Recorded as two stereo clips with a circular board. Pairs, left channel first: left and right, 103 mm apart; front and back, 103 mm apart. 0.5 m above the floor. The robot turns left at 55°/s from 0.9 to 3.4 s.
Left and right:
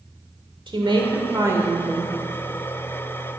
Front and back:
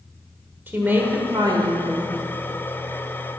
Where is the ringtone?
I don't hear a ringtone.